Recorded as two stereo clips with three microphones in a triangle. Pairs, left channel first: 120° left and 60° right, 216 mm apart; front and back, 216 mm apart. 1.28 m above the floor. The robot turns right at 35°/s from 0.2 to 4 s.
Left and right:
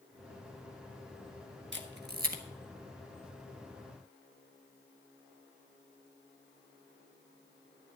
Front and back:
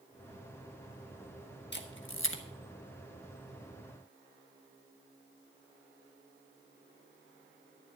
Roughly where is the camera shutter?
Ahead right.